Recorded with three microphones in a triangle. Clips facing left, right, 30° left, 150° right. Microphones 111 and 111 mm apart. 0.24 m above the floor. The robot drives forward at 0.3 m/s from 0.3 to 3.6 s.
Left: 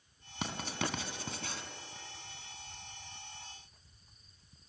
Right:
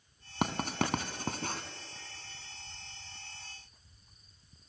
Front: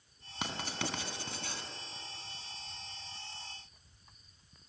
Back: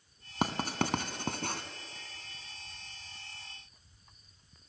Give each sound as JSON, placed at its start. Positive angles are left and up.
{"t": 0.4, "sound": "writing", "azimuth_deg": -115, "distance_m": 1.5}